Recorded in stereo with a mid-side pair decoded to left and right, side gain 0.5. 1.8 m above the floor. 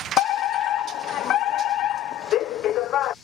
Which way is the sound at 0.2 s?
70° left.